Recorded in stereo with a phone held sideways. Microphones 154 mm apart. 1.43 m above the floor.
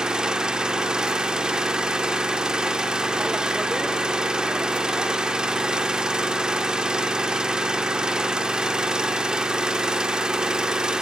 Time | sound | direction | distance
0.0 | an engine running | 5° right (ahead or behind) | 1.5 m